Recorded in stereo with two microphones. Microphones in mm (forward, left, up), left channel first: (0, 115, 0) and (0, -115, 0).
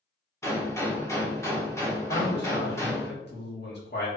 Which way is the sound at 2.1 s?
50° left (ahead or behind).